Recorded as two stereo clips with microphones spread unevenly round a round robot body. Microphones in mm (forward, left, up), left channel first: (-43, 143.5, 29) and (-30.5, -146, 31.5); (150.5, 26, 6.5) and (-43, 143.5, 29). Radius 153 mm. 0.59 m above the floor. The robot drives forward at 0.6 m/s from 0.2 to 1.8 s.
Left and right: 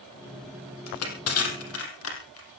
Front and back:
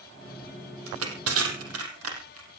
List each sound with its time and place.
0.9 s crushing: 130° left, 4.5 m; by 2.5 s 135° left, 5 m